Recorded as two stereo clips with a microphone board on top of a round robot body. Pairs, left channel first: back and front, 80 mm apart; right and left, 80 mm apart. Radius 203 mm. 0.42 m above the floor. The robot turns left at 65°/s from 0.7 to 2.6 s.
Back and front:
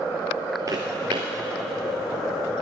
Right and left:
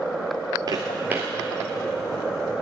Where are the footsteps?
50° left, 0.6 m; by 1.3 s 10° left, 0.6 m.